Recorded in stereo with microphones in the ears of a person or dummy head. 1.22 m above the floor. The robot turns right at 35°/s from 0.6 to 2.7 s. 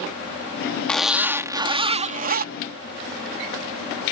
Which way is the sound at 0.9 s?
Straight behind.